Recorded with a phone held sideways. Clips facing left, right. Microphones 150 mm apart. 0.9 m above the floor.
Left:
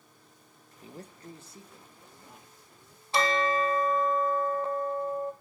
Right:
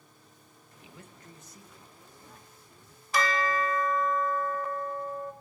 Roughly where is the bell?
Left.